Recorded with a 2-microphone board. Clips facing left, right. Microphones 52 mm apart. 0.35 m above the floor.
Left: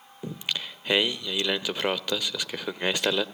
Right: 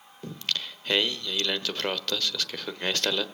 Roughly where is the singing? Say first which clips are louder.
Left 1 dB; centre.